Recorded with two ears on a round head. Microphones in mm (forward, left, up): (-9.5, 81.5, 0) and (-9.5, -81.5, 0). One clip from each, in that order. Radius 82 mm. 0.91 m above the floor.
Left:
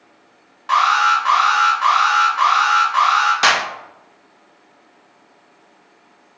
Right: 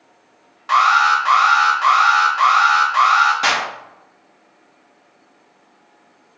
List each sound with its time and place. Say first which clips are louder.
0.7 s an alarm: right 1 dB; 5° right (ahead or behind), 0.9 m
3.4 s a clap: left 3 dB; 35° left (ahead or behind), 0.6 m